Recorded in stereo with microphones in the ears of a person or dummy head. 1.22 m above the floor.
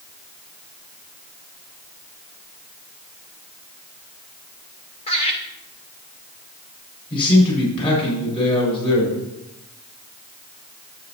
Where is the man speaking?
25° left (ahead or behind), 6 m.